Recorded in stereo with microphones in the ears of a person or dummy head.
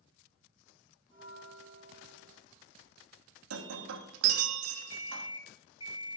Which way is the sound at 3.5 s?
75° right (ahead or behind).